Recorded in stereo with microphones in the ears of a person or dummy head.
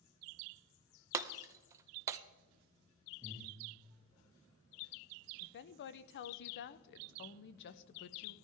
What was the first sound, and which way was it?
Breaking glass, 20° right (ahead or behind).